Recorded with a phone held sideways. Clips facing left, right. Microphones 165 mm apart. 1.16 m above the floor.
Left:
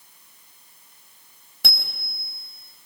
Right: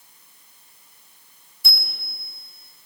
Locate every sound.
1.6 s a bicycle bell: 80° left, 5 m